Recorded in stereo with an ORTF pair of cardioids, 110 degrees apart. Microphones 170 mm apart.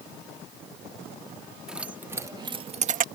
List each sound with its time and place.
1.7 s keys jangling: 5° right; by 3.0 s 55° right